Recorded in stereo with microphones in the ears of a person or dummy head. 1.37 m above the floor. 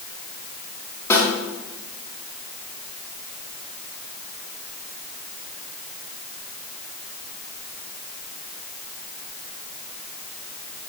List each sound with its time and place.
1.1 s a snare drum: 20° left (ahead or behind), 3 m